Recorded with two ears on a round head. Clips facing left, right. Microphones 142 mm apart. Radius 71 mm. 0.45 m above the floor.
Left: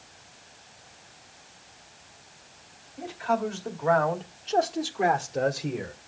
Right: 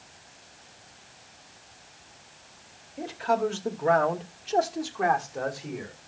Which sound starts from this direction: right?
A man speaking, at 3.0 s.